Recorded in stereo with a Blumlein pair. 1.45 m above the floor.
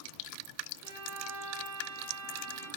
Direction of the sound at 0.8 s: 45° right.